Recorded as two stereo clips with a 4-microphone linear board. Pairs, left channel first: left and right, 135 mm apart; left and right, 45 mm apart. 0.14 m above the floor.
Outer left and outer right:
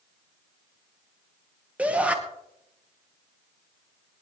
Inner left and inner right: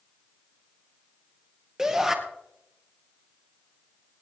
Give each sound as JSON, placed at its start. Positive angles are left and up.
{"t": 1.8, "sound": "a shout", "side_deg": -10, "distance_m": 2.5}